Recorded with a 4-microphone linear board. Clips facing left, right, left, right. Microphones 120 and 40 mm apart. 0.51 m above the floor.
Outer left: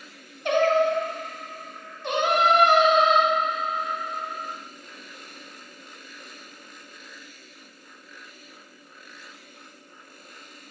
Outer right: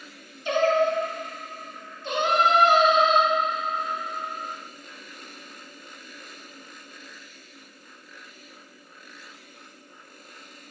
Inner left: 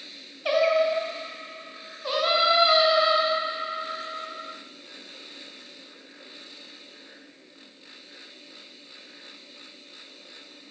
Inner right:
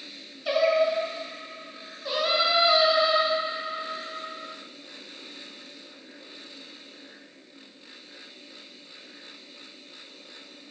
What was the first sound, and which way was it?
Singing, 65° left (ahead or behind).